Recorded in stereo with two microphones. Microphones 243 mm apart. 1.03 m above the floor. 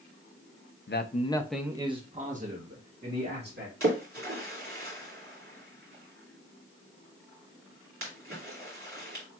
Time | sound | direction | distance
0.9 | a man speaking | 50° left (ahead or behind) | 0.6 m
3.8 | a splash | 60° right (ahead or behind) | 2.0 m